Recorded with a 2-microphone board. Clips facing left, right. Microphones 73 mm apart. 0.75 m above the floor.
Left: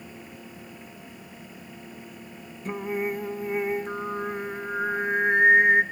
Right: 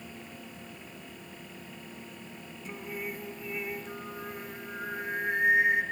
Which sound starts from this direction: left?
Singing, at 2.6 s.